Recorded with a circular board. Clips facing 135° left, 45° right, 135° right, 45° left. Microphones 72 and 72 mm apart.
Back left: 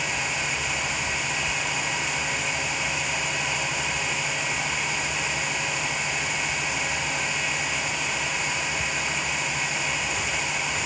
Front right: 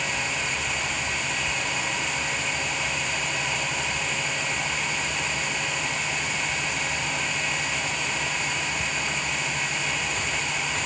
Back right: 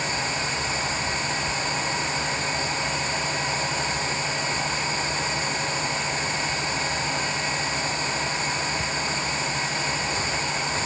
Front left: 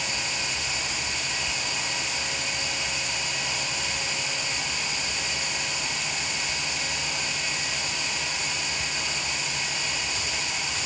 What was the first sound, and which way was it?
Only background noise.